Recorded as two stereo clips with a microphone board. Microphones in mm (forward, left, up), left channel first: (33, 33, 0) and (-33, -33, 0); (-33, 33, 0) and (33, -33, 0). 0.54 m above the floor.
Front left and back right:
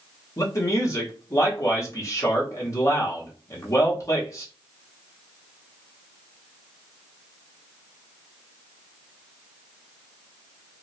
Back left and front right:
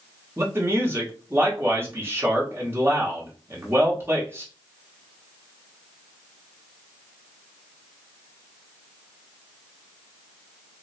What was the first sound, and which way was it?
A man speaking, 5° left.